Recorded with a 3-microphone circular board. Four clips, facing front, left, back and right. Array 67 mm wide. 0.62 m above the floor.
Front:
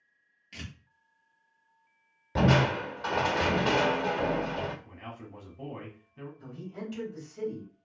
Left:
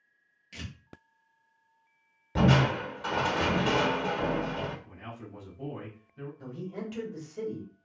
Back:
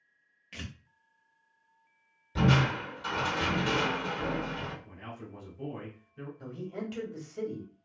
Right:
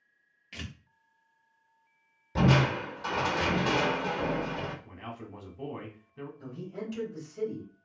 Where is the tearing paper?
125° right, 0.8 m.